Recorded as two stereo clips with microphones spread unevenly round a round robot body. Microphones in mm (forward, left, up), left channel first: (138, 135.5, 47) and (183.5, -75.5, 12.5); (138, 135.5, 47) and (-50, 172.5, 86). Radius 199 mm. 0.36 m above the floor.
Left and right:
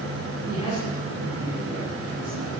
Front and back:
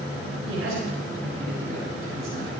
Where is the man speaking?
175° left, 6.5 m.